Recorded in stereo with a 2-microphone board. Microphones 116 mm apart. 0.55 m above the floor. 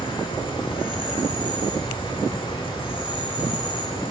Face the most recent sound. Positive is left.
turn(degrees=45)  # may be behind; listen again after turning